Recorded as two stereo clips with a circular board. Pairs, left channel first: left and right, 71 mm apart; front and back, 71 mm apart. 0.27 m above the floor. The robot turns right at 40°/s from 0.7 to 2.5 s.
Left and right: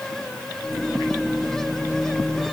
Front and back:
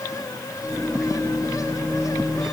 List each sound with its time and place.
Only background noise.